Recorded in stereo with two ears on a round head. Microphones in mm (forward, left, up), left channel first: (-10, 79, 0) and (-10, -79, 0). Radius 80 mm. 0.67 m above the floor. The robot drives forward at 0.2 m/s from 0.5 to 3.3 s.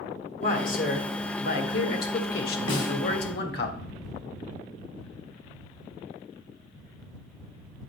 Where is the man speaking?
45° left (ahead or behind), 1.6 m; by 3.7 s 60° left (ahead or behind), 1.4 m.